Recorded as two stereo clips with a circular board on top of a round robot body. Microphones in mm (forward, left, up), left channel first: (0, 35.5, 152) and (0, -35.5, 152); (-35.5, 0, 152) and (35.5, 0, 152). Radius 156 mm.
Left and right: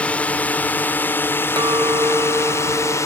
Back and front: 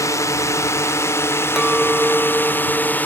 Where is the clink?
85° right.